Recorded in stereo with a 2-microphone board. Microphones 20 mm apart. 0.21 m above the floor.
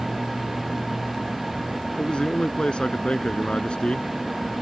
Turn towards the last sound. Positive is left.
turn(degrees=60)  # may be behind; listen again after turning